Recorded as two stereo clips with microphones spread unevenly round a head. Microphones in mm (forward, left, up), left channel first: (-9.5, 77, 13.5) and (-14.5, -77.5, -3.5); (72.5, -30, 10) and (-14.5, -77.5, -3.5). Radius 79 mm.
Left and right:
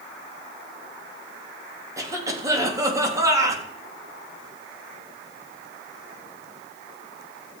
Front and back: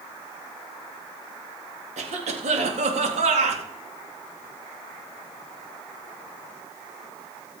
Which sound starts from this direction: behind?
A cough, at 2.0 s.